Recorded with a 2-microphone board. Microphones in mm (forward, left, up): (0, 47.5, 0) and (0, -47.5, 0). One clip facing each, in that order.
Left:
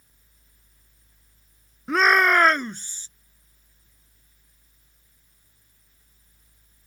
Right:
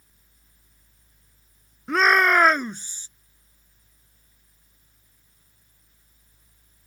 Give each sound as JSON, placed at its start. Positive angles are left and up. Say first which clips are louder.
{"t": 1.9, "sound": "a shout", "louder": "even", "side_deg": 0}